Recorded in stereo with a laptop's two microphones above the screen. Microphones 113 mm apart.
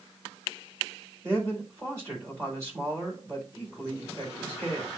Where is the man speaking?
25° right (ahead or behind), 6.5 m.